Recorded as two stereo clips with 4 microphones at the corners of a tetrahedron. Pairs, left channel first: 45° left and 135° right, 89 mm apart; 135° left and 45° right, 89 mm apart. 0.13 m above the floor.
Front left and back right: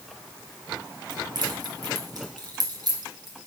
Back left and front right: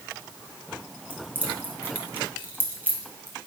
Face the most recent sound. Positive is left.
turn(degrees=-110)